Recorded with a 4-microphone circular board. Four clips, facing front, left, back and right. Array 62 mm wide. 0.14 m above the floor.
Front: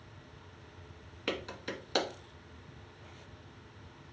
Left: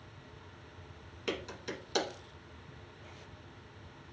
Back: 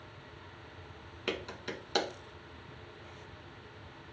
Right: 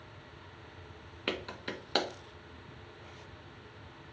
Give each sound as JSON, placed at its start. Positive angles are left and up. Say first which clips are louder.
{"t": 1.3, "sound": "a clap", "louder": "right 1 dB, even", "azimuth_deg": -85, "distance_m": 1.0}